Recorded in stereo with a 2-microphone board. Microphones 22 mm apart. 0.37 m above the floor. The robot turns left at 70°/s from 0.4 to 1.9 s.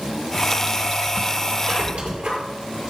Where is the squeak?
80° right, 6 m; by 2.4 s 60° right (ahead or behind), 6 m.